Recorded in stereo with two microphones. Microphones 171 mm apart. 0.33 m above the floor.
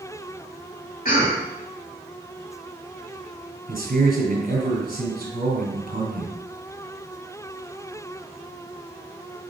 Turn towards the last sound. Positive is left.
turn(degrees=-55)  # may be behind; listen again after turning